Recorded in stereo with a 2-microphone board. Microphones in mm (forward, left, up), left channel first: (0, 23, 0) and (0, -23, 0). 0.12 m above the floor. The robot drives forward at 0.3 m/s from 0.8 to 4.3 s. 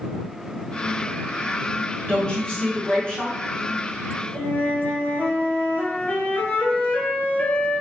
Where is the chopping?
No chopping in this recording.